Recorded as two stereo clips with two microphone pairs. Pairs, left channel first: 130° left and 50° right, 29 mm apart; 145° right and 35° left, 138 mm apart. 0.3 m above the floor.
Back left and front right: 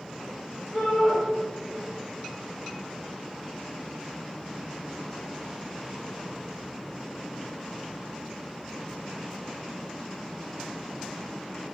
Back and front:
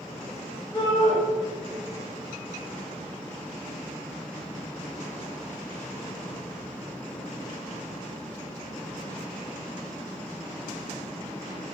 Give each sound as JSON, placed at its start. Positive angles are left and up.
{"t": 0.7, "sound": "a shout", "azimuth_deg": -80, "distance_m": 2.0}